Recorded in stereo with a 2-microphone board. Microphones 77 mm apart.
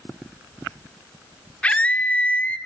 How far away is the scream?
About 1.0 m.